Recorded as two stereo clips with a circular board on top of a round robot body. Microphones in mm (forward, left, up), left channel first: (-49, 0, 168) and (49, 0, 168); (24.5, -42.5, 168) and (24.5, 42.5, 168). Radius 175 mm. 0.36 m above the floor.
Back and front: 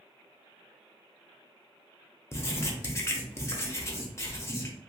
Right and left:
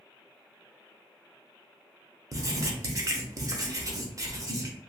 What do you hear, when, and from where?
2.3 s writing: 125° left, 0.9 m